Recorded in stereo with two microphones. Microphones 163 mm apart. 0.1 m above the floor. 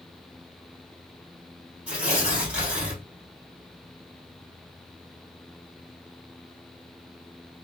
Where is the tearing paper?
10° right (ahead or behind), 1.9 m.